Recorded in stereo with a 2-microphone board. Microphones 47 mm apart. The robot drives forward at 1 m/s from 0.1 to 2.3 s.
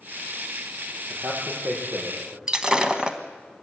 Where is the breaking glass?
15° right (ahead or behind), 1.4 m.